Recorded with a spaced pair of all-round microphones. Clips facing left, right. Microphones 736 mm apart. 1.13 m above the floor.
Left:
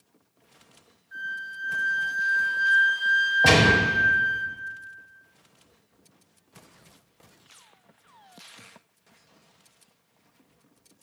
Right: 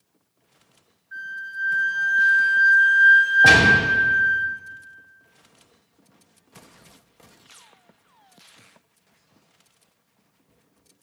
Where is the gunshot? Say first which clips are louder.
Left 1 dB; 5° left (ahead or behind), 1.3 m.